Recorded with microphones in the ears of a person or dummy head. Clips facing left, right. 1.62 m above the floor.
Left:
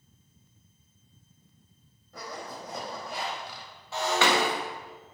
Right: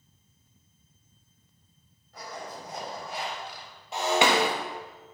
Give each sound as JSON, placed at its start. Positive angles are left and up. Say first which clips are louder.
{"t": 2.1, "sound": "a zipper", "louder": "even", "side_deg": 80, "distance_m": 3.5}
{"t": 3.9, "sound": "breaking glass", "louder": "right 2 dB", "side_deg": -15, "distance_m": 1.5}